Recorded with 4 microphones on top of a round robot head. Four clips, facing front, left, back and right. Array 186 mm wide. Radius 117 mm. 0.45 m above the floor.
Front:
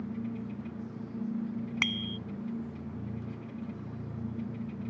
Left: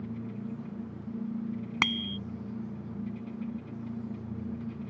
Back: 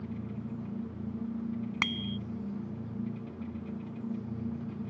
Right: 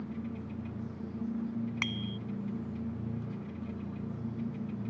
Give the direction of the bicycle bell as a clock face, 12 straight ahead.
9 o'clock.